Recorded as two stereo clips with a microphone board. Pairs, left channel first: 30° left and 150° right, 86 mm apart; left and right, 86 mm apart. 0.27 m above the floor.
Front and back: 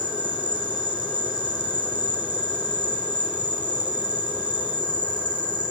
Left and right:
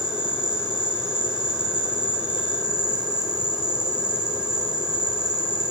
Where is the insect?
170° right, 6 m.